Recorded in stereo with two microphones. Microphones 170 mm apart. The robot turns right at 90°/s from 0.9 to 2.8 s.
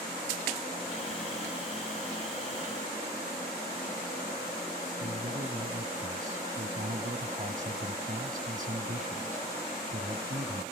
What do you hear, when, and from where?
5.0 s a man speaking: 50° right (ahead or behind), 1.2 m